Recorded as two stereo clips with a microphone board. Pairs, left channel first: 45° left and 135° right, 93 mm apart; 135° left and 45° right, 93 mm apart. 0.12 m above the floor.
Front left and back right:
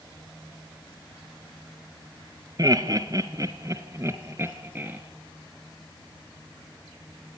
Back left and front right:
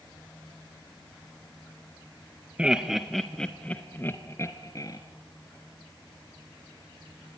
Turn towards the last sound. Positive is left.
turn(degrees=165)